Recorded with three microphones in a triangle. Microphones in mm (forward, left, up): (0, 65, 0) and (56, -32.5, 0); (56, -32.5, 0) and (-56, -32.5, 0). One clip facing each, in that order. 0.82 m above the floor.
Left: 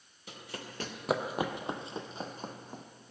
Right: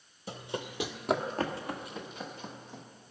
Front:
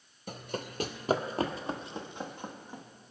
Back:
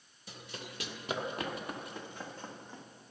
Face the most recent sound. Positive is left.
turn(degrees=80)